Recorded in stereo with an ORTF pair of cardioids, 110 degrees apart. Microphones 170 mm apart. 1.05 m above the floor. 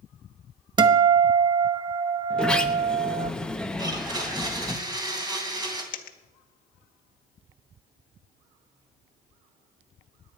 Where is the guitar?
25° right, 1.0 m.